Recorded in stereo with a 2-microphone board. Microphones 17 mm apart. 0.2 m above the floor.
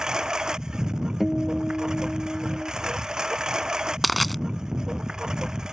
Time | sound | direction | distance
0.0 | a lawn mower | 40° right (ahead or behind) | ?
1.2 | a guitar | centre (ahead or behind) | ?
4.0 | crushing | centre (ahead or behind) | ?